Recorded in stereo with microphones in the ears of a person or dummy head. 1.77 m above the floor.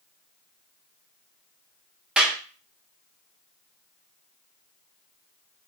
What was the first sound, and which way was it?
A clap, centre (ahead or behind).